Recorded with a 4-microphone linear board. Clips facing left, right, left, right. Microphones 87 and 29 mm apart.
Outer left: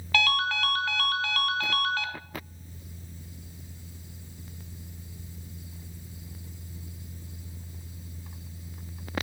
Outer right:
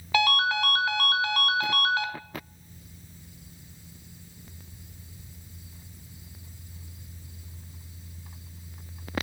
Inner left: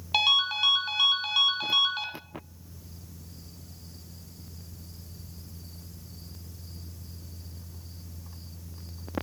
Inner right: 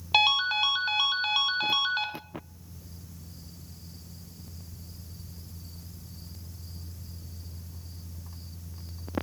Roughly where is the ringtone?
Centre.